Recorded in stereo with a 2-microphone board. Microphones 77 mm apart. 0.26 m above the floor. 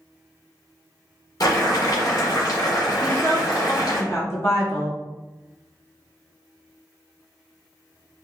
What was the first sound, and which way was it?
Boiling, 55° left (ahead or behind).